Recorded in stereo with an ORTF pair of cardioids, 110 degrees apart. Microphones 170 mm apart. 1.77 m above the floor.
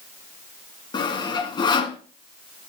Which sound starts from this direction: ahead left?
Sawing, at 0.9 s.